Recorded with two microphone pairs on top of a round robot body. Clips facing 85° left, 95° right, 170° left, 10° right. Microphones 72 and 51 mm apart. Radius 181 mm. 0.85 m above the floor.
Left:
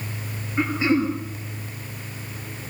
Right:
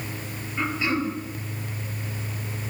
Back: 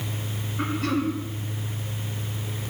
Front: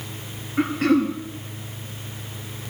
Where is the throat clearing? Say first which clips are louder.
Left 5 dB, front 7 dB; 15° left, 3 m.